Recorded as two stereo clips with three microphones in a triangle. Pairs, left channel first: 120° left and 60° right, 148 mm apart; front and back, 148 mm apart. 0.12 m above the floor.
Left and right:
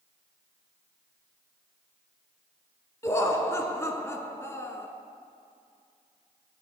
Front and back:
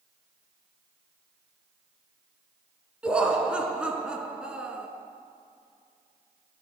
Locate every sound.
3.0 s laughter: 110° left, 1.0 m